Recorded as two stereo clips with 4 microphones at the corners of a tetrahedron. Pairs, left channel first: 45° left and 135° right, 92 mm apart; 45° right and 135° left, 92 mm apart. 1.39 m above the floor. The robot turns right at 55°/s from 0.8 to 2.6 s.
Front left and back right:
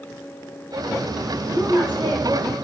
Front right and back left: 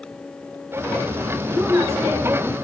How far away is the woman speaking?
About 6 m.